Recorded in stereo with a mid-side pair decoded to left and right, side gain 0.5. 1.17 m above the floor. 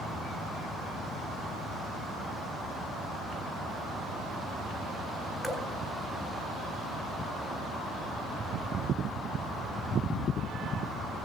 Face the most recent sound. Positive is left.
turn(degrees=5)